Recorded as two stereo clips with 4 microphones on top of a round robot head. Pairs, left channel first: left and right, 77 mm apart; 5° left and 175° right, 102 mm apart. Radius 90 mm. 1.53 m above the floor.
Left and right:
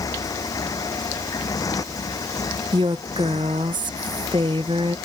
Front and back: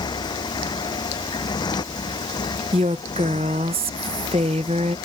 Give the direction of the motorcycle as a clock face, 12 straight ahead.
10 o'clock.